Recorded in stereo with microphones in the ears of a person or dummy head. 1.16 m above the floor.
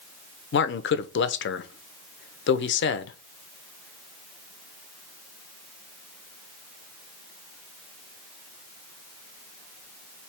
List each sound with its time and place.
0.5 s a man speaking: 60° left (ahead or behind), 0.5 m